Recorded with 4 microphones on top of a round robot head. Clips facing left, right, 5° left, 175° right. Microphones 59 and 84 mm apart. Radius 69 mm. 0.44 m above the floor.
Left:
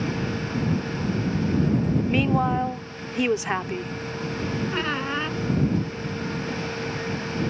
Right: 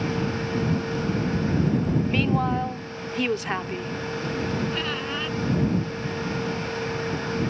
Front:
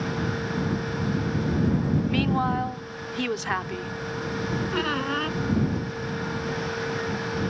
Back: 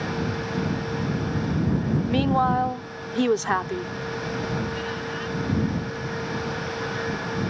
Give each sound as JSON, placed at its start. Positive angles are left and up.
{"t": 2.1, "sound": "a woman speaking", "azimuth_deg": 160}
{"t": 4.7, "sound": "a squeak", "azimuth_deg": 30}